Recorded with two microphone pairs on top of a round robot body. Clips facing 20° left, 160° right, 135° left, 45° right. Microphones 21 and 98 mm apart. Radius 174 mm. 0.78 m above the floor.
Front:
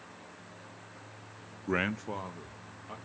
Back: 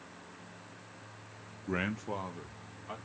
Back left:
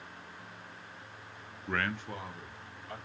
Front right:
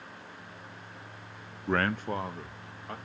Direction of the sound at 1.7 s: 15° right.